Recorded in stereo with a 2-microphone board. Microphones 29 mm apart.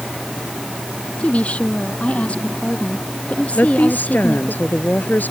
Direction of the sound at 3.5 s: 85° left.